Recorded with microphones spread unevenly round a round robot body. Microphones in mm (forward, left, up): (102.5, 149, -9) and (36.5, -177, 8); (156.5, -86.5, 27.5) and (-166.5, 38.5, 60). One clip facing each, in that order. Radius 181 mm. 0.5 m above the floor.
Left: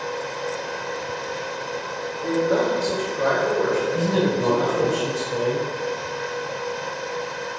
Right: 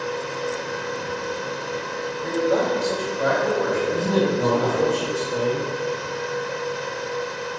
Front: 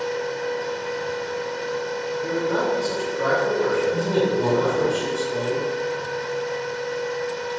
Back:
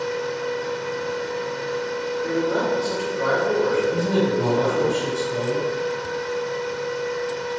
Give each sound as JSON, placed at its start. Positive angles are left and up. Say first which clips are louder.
{"t": 2.2, "sound": "a man speaking", "louder": "left 1 dB, back 1 dB", "azimuth_deg": 10, "distance_m": 1.7}
{"t": 3.9, "sound": "a man speaking", "louder": "even, even", "azimuth_deg": -150, "distance_m": 1.6}